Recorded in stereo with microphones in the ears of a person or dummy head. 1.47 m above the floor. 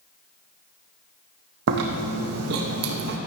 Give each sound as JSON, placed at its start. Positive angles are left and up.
{"t": 1.7, "sound": "chewing", "side_deg": -75, "distance_m": 1.5}